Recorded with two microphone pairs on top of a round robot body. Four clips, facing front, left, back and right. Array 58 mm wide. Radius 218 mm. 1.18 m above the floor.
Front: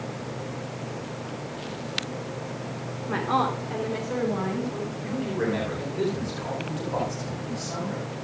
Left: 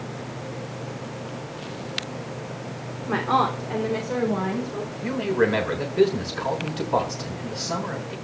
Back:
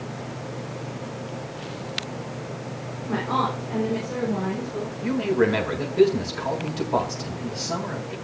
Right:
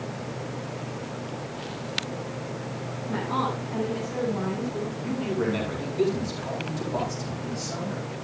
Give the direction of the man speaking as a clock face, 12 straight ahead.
8 o'clock.